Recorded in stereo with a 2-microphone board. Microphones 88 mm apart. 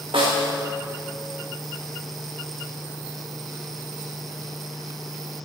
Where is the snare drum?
85° right, 2 m.